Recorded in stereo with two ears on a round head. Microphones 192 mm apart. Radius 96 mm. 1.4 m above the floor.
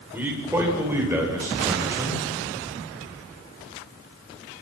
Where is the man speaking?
10° right (ahead or behind), 6 m; by 2.2 s 15° right (ahead or behind), 8 m.